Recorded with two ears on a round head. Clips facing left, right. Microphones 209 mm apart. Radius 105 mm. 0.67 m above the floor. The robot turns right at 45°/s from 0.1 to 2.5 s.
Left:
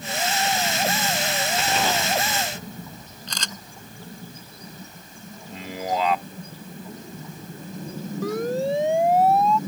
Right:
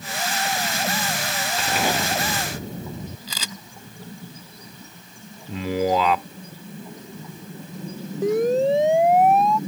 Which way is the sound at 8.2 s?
20° right (ahead or behind).